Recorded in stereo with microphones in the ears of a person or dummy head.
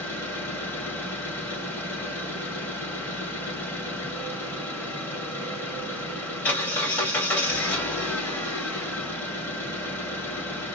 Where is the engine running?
15° left (ahead or behind), 0.9 m.